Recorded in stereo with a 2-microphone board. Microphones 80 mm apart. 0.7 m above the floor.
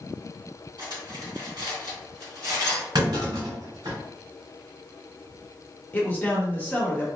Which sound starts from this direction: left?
A man speaking, at 5.9 s.